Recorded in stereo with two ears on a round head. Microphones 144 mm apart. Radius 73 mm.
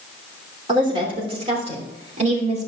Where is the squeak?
No squeak in this recording.